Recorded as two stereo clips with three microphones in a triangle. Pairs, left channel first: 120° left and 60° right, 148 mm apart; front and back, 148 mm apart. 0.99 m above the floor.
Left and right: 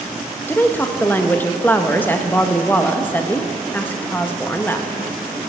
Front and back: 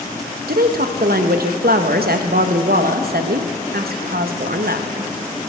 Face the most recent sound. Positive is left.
turn(degrees=-160)